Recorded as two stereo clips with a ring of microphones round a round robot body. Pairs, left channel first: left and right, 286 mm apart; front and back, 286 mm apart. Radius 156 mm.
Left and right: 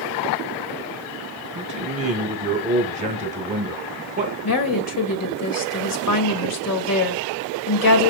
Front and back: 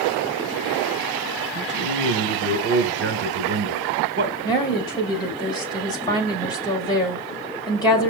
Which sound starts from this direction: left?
A woman speaking, at 4.4 s.